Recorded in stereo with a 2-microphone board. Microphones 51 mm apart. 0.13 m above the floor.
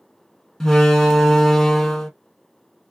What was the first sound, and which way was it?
A door slam, 10° left (ahead or behind).